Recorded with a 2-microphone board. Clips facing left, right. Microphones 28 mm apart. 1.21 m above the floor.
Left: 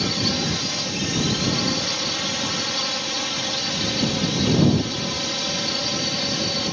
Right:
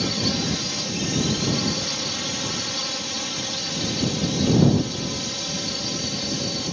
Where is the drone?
10° left (ahead or behind); by 6.7 s 20° left (ahead or behind).